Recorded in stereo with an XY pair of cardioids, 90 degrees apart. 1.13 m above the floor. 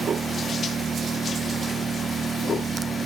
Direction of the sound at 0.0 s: 45° right.